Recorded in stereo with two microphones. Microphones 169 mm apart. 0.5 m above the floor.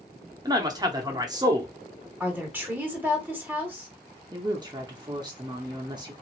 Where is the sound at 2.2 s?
10° right (ahead or behind), 1.2 m.